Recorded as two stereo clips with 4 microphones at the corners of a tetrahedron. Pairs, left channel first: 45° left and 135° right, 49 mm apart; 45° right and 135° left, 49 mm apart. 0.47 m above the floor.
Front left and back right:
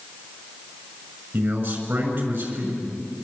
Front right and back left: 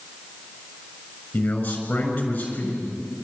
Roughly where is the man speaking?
Right.